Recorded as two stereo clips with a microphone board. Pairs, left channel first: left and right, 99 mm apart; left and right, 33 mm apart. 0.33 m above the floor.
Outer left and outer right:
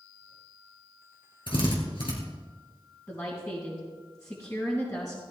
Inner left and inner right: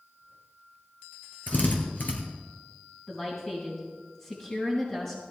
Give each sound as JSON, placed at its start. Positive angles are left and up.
{"t": 1.5, "sound": "a drill", "side_deg": 60, "distance_m": 3.5}
{"t": 3.1, "sound": "a woman speaking", "side_deg": 30, "distance_m": 3.5}